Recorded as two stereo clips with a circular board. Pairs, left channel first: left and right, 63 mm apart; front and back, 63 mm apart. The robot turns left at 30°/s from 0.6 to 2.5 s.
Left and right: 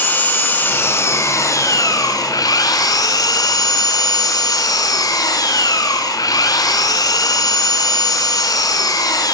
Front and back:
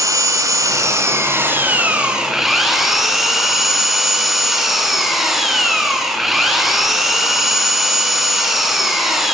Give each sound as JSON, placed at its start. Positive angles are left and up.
{"t": 0.0, "sound": "an engine running", "azimuth_deg": 150, "distance_m": 6.5}